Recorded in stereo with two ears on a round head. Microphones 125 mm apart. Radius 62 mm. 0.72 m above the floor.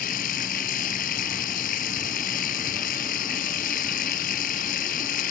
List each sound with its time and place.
0.0 s running water: 65° left (ahead or behind)